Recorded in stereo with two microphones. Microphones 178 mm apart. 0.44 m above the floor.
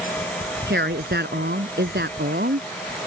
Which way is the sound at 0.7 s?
70° right (ahead or behind).